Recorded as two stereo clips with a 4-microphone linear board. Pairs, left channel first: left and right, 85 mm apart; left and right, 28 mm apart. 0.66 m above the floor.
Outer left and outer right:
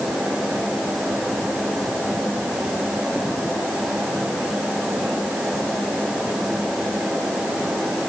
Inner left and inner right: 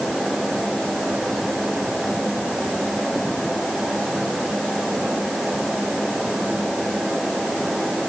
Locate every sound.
Only background noise.